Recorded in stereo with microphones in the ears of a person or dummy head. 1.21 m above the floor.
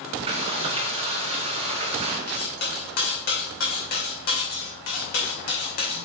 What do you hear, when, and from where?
0.3 s frying: 30° right (ahead or behind), 1.5 m
2.3 s cutlery clinking: 50° left (ahead or behind), 2.5 m